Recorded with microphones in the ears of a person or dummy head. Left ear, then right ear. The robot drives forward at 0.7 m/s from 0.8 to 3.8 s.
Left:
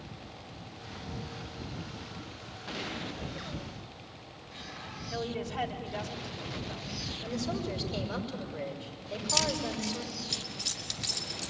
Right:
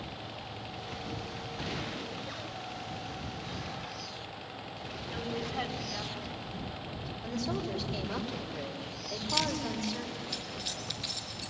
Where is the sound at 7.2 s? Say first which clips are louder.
Right 2 dB; 10° right (ahead or behind), 5.5 m.